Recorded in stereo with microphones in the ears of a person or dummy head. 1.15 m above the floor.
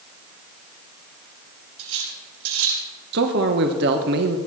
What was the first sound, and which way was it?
Cutlery clinking, 85° right.